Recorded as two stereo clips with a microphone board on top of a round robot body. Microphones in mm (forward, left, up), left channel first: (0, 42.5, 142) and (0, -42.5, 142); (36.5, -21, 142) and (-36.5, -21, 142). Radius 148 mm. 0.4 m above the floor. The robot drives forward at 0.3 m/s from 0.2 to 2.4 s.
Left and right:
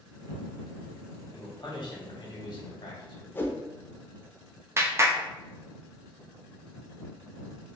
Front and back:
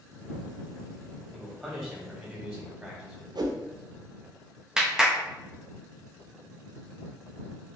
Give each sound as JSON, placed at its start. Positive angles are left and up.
{"t": 1.3, "sound": "a man speaking", "azimuth_deg": 95, "distance_m": 1.3}
{"t": 3.4, "sound": "a whoosh", "azimuth_deg": 155, "distance_m": 0.5}
{"t": 4.8, "sound": "a clap", "azimuth_deg": -105, "distance_m": 0.8}